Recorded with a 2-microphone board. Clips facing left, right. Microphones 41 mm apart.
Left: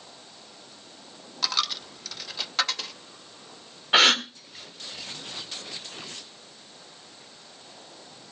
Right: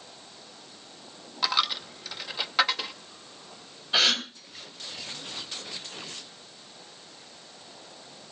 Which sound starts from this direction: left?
A gasp, at 3.9 s.